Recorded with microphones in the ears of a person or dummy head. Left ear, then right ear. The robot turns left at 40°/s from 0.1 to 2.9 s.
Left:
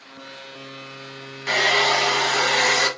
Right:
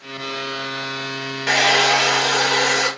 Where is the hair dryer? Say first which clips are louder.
Right 3 dB; 155° right, 1.5 m; by 2.9 s 145° left, 1.5 m.